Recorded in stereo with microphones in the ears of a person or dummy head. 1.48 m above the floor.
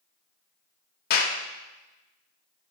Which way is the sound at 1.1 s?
60° left (ahead or behind).